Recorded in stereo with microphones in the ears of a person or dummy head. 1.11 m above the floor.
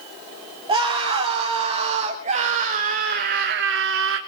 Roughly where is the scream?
Right.